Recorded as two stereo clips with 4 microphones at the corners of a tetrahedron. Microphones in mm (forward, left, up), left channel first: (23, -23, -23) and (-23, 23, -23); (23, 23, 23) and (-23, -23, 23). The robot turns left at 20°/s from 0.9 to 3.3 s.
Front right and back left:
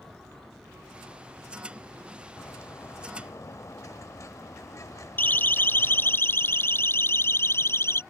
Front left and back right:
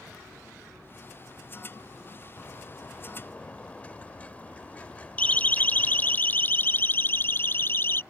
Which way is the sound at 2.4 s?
Straight ahead.